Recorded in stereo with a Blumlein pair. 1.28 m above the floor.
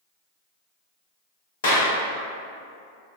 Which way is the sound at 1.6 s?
60° left.